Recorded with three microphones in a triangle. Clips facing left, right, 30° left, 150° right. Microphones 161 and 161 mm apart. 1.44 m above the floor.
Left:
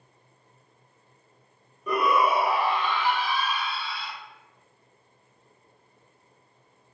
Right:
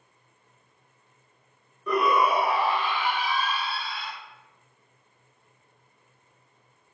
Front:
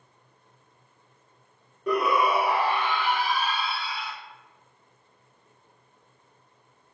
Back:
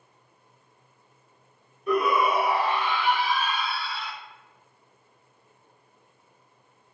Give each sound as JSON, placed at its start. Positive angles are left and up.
{"t": 1.9, "sound": "a shout", "azimuth_deg": 10, "distance_m": 1.4}